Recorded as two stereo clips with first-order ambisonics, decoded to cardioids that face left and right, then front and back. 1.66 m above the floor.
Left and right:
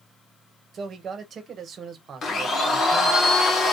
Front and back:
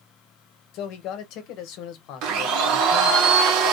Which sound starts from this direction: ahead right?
A man speaking, at 0.7 s.